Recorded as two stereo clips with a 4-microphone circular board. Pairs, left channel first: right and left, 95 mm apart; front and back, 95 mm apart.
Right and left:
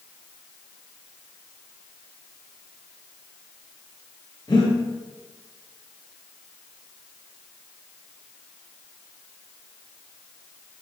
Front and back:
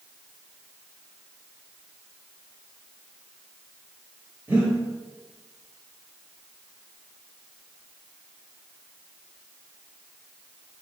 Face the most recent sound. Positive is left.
turn(degrees=-115)